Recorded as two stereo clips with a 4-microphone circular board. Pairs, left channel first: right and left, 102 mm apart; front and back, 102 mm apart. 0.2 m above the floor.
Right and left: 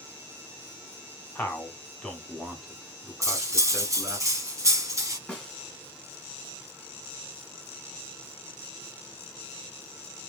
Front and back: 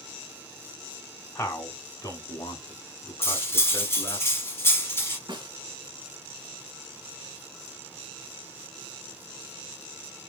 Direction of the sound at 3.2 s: 55° left.